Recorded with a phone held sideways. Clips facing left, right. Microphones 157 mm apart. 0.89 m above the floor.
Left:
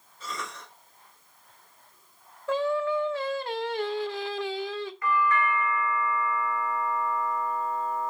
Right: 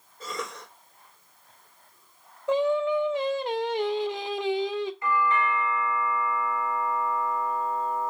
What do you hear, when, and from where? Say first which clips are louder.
0.2 s a cough: right 3 dB; 50° right (ahead or behind), 3.5 m
2.5 s singing: right 3 dB; 20° right (ahead or behind), 0.8 m
5.0 s a doorbell: left 1 dB; 20° right (ahead or behind), 1.2 m